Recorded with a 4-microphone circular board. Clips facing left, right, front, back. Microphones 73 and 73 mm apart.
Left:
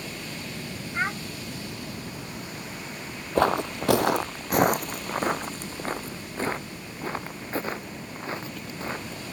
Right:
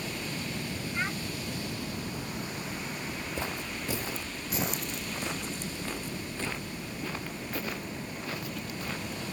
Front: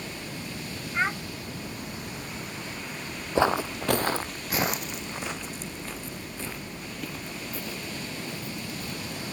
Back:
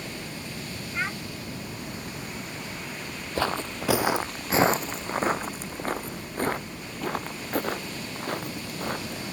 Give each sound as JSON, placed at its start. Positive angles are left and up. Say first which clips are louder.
{"t": 0.9, "sound": "a child speaking", "louder": "left 6 dB, front 4 dB", "azimuth_deg": 55}
{"t": 3.4, "sound": "footsteps", "louder": "left 18 dB, front 4 dB", "azimuth_deg": 70}